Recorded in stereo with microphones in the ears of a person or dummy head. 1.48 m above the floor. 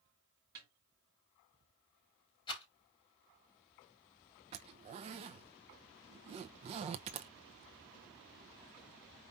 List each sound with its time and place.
0.6 s a snare drum: 20° right (ahead or behind), 0.8 m
2.5 s a rattle: 25° left (ahead or behind), 3.5 m
4.5 s a zipper: 35° right (ahead or behind), 0.7 m